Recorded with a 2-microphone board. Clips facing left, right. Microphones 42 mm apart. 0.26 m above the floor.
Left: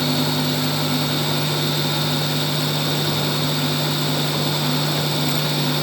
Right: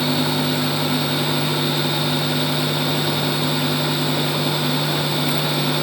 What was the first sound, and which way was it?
Only background noise.